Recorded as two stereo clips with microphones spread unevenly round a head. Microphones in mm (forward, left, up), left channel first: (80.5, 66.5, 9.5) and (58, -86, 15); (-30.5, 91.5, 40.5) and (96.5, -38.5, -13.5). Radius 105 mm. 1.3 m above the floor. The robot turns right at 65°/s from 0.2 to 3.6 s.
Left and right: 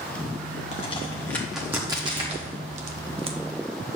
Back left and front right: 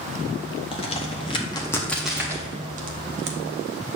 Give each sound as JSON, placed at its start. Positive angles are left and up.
{"t": 0.7, "sound": "a crack", "azimuth_deg": 120, "distance_m": 0.8}